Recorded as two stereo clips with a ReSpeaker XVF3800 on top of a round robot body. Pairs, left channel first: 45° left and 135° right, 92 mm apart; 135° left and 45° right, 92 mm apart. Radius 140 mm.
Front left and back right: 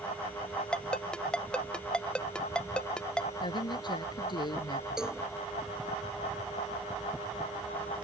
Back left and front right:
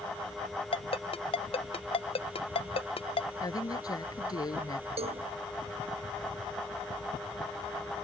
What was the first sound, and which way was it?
A ringtone, 125° left.